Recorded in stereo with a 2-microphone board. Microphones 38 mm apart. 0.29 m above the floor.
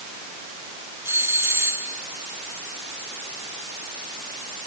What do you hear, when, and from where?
1.1 s a doorbell: 75° right (ahead or behind)